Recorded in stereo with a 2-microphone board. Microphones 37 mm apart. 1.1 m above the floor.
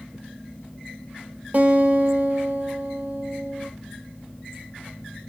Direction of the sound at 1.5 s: 45° right (ahead or behind).